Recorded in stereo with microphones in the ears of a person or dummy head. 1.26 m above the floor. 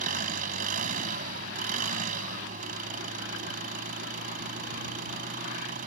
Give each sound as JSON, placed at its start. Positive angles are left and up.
{"t": 0.0, "sound": "an engine running", "side_deg": -50}